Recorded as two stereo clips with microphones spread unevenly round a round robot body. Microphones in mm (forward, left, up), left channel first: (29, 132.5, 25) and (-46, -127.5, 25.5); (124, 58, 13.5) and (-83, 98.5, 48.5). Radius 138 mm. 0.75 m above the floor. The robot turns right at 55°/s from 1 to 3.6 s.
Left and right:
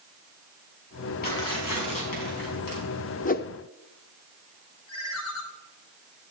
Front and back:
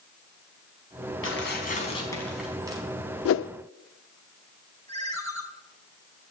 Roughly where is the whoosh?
Ahead.